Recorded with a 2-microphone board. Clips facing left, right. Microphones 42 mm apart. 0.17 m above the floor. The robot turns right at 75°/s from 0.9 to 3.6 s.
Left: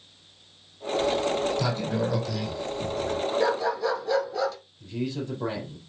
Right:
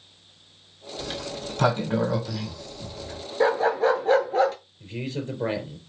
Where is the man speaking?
40° right (ahead or behind), 4.5 m.